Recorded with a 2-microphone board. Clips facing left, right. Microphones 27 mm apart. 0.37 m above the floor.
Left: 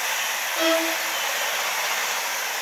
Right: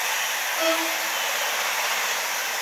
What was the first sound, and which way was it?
A violin, 50° left (ahead or behind).